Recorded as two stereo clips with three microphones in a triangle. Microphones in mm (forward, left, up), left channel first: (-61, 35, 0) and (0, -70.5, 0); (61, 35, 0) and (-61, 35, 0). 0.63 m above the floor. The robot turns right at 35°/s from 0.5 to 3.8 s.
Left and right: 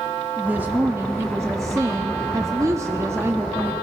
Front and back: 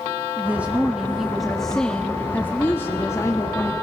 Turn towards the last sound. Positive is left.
turn(degrees=-5)